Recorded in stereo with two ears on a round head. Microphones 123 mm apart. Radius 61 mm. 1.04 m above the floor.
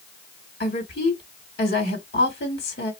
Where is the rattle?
No rattle in this recording.